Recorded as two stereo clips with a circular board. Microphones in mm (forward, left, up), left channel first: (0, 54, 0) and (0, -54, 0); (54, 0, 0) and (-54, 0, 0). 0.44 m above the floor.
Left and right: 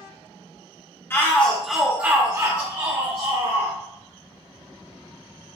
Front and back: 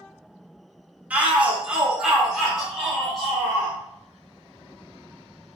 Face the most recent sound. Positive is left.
turn(degrees=-90)